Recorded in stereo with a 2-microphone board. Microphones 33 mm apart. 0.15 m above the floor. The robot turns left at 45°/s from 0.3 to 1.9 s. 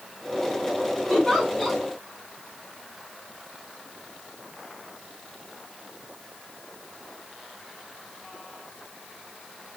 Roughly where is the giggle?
Centre.